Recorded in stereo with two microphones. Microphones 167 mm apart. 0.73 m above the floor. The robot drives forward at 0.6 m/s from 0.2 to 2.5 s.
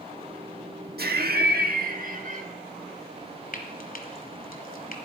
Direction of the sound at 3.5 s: 60° left (ahead or behind).